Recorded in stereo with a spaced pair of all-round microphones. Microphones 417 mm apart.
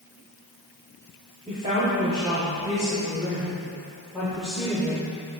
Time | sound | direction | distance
1.5 | a woman speaking | 20° right (ahead or behind) | 3 m